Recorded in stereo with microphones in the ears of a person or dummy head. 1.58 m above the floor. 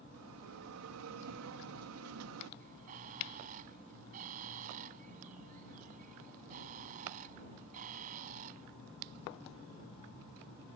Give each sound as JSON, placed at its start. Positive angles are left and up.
{"t": 0.1, "sound": "a bell", "side_deg": -80}
{"t": 2.6, "sound": "a bird", "side_deg": -40}